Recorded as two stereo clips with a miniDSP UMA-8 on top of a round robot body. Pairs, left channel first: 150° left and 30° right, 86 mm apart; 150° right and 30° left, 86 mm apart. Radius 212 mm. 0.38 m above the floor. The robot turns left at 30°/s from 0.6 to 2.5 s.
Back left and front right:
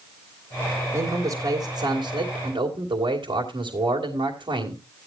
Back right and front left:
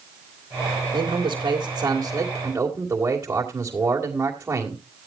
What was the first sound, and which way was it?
A man speaking, 10° left.